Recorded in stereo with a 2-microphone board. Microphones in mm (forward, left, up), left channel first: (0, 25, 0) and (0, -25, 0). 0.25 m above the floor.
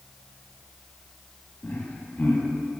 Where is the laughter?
30° left (ahead or behind), 2.0 m.